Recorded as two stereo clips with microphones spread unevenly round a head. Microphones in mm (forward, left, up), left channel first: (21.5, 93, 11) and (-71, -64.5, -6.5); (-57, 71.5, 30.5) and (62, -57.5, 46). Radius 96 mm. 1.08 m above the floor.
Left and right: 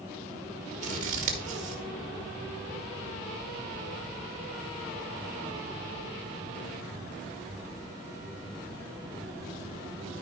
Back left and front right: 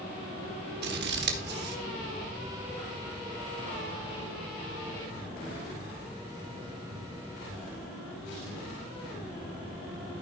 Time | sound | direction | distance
0.8 | scissors | 70° right | 1.4 m